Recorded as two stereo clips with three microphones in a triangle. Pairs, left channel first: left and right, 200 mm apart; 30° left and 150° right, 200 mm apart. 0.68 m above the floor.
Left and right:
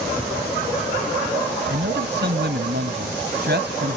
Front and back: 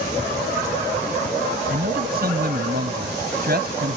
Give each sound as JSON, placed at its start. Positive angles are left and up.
{"t": 1.7, "sound": "a man speaking", "azimuth_deg": -115}